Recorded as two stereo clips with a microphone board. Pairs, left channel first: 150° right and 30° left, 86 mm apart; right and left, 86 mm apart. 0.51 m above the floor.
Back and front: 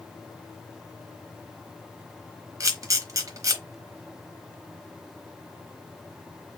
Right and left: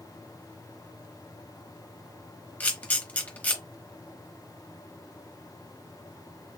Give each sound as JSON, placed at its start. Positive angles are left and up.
{"t": 2.6, "sound": "a camera shutter", "azimuth_deg": -20, "distance_m": 1.0}